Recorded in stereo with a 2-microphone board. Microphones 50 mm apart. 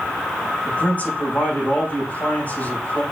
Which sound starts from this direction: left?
A man speaking, at 0.7 s.